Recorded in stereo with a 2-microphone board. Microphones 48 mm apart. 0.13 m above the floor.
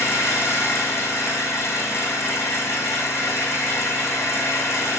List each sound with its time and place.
0.0 s an engine running: 65° left (ahead or behind), 4 m